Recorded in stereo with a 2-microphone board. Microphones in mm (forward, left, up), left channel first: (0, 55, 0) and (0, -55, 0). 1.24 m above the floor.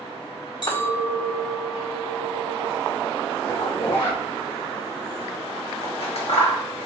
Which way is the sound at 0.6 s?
45° left (ahead or behind).